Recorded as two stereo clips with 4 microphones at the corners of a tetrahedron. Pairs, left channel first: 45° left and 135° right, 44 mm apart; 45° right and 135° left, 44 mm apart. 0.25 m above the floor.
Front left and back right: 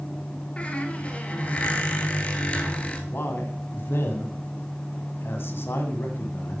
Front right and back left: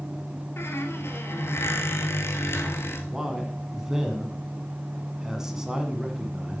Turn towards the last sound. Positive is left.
turn(degrees=60)